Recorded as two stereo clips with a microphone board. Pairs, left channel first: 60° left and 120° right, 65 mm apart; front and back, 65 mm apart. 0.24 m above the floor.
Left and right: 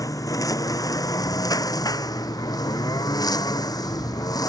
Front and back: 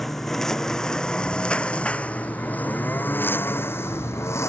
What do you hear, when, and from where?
0.0 s a lawn mower: 85° left; by 4.5 s 45° left